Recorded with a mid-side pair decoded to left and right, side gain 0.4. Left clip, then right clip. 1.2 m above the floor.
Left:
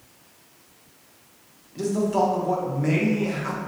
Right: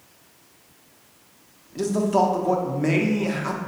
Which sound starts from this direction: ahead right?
A man speaking, at 1.8 s.